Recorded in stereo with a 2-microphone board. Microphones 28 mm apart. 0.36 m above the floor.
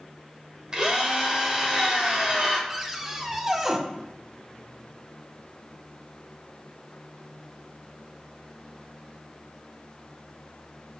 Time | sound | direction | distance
0.7 | a drill | 30° right (ahead or behind) | 1.5 m
2.7 | a cupboard door | 20° right (ahead or behind) | 0.7 m